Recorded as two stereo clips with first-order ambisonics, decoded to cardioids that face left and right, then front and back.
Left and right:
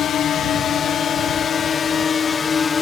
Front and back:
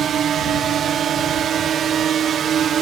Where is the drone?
135° left; by 2.8 s 150° left.